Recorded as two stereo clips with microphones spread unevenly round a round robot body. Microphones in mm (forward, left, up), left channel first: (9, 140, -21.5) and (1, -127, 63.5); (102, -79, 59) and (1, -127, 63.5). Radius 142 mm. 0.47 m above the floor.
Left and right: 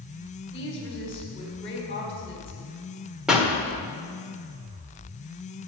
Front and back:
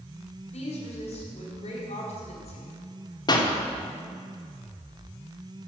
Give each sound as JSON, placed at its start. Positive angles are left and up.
{"t": 0.5, "sound": "a woman speaking", "azimuth_deg": 25, "distance_m": 2.5}
{"t": 3.3, "sound": "a pop", "azimuth_deg": 15, "distance_m": 1.6}